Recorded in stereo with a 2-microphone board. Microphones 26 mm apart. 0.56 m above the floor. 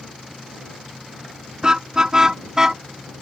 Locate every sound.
1.6 s a car horn: 25° right (ahead or behind); by 2.8 s 20° right (ahead or behind)